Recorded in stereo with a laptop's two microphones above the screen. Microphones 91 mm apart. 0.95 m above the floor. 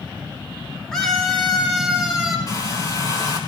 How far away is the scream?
About 3.5 m.